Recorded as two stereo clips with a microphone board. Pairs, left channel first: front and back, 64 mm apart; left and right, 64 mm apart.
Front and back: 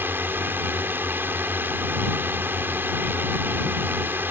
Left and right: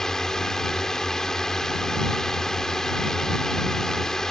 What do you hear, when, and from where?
0.0 s a drone: 165° left